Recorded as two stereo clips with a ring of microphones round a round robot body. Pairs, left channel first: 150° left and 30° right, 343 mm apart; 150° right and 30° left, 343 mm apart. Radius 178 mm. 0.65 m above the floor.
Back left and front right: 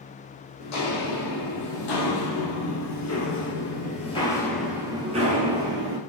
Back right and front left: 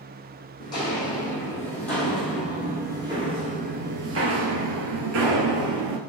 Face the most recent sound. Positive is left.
turn(degrees=20)